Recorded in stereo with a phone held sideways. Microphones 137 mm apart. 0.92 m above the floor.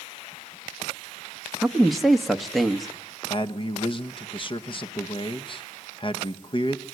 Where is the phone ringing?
I don't hear a phone ringing.